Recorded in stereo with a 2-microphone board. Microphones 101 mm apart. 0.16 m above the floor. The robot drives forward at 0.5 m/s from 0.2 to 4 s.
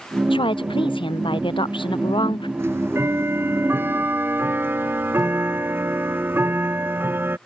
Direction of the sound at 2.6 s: 25° right (ahead or behind).